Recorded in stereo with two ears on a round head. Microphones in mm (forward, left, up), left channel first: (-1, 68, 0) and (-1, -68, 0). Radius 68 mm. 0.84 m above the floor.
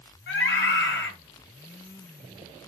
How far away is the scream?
About 1.7 m.